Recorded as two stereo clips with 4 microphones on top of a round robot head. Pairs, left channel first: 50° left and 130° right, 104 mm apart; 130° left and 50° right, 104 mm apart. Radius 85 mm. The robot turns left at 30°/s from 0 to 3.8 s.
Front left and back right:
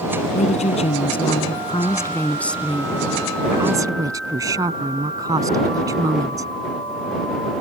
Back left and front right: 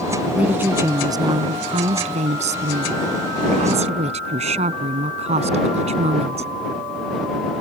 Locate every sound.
0.3 s a woman speaking: 30° left; by 6.5 s 70° right